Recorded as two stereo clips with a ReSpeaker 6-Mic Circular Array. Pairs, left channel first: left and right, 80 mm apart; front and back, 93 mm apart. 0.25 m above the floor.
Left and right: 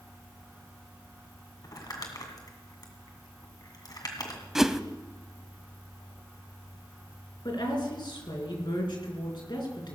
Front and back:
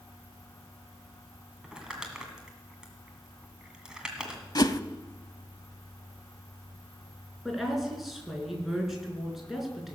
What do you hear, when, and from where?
1.6 s crumpling: 100° left, 2 m
4.5 s a whoosh: 5° right, 0.6 m
7.5 s a woman speaking: 95° left, 4 m